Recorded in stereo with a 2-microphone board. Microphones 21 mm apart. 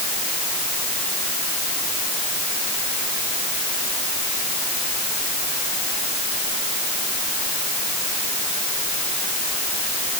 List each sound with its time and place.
Only background noise.